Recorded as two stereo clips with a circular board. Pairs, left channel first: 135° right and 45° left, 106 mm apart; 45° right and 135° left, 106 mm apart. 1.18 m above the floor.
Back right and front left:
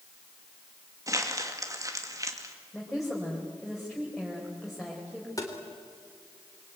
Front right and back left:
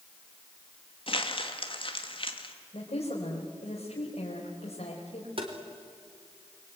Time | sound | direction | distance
1.1 | crumpling | 10° right | 2 m
2.7 | a woman speaking | 45° right | 4 m
5.4 | tapping | 170° left | 3.5 m